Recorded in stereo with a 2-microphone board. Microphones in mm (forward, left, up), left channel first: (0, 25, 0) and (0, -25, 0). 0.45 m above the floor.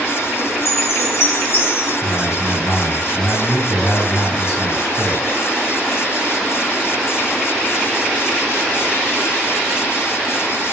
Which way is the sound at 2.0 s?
65° left (ahead or behind).